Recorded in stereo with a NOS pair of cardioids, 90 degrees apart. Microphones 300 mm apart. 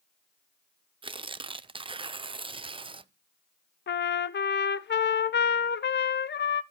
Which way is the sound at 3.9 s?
35° left.